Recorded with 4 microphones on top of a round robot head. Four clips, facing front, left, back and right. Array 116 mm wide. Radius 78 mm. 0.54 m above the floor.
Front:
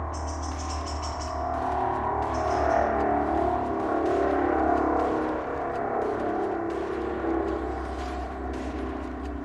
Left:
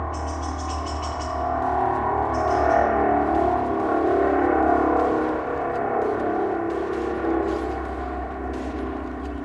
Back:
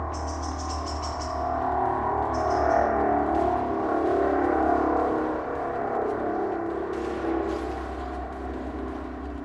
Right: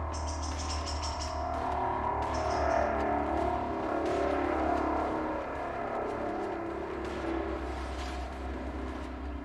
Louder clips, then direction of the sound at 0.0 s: Left 9 dB, back 2 dB; 110° left.